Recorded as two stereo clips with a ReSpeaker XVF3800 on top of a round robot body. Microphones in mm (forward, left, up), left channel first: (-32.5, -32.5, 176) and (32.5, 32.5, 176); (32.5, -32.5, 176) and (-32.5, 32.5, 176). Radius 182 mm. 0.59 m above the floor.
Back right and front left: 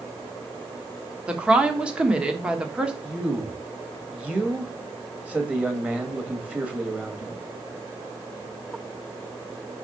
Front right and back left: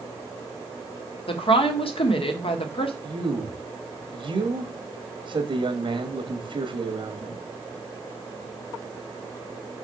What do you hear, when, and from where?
1.3 s a woman speaking: 35° right, 1.5 m
3.0 s a man speaking: 120° left, 2 m